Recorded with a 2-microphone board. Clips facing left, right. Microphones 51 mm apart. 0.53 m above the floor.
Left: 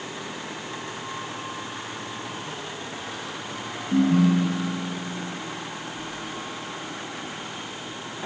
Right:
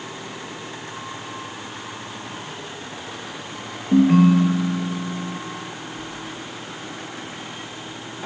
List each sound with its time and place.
3.9 s a ringtone: 75° right (ahead or behind), 5 m
6.0 s a sliding door: 60° right (ahead or behind), 8 m